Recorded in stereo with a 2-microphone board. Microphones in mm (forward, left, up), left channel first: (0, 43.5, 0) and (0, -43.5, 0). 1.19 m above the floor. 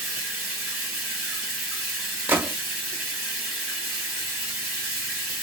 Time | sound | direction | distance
0.0 | running water | 5° right (ahead or behind) | 1.8 m
2.3 | a gunshot | 25° right (ahead or behind) | 0.6 m